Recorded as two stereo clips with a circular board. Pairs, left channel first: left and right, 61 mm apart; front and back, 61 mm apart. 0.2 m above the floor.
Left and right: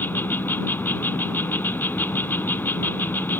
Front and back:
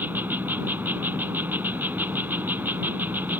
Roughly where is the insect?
Behind left.